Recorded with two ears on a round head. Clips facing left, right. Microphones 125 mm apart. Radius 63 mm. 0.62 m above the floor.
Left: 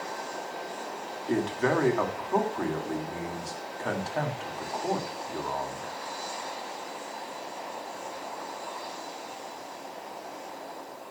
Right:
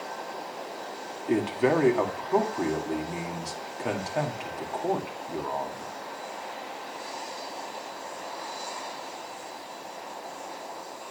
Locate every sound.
1.3 s a man speaking: 15° right (ahead or behind), 1.9 m